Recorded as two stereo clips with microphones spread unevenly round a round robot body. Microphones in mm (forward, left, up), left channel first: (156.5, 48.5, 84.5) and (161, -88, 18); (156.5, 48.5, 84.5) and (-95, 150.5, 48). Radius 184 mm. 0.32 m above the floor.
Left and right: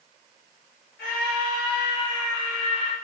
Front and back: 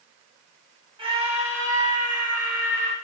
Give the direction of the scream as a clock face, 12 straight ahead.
9 o'clock.